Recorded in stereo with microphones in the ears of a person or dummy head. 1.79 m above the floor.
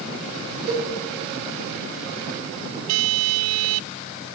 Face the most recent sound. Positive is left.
turn(degrees=-55)  # may be behind; listen again after turning